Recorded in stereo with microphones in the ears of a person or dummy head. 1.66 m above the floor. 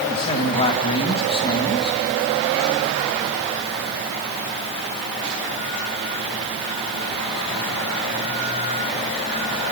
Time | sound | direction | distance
0.1 | a man speaking | 40° left (ahead or behind) | 3 m